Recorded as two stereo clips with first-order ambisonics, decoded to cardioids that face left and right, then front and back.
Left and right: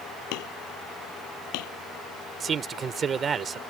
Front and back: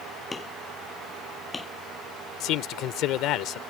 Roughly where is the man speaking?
Ahead right.